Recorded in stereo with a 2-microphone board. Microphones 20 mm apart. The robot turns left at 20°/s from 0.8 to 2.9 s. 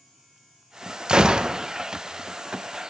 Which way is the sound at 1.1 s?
40° right (ahead or behind).